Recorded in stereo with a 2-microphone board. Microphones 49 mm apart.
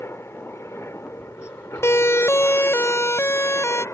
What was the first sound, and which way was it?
A helicopter, 65° left (ahead or behind).